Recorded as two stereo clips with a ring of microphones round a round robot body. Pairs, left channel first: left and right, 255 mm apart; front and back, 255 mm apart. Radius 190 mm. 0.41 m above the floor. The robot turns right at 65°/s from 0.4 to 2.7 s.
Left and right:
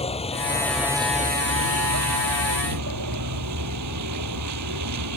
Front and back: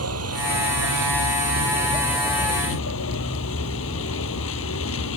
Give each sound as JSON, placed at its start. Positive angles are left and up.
{"t": 0.0, "sound": "a vehicle", "azimuth_deg": 155}